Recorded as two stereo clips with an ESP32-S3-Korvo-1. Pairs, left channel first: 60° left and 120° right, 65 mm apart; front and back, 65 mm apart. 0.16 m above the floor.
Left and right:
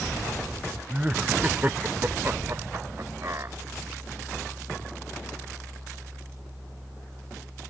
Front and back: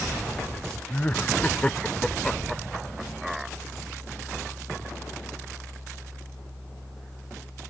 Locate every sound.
0.9 s laughter: 55° right; by 3.6 s 100° right